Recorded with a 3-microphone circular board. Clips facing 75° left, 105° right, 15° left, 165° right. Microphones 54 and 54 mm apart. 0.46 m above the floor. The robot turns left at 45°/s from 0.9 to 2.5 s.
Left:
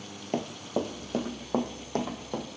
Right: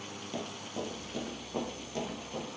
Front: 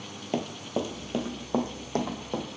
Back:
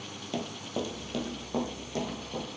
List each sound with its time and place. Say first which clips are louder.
0.3 s running footsteps: left 9 dB, front 4 dB; 65° left, 0.7 m; by 2.5 s 30° left, 1.7 m